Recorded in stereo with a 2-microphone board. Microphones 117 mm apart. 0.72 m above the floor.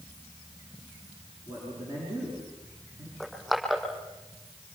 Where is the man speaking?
30° right (ahead or behind), 9.5 m.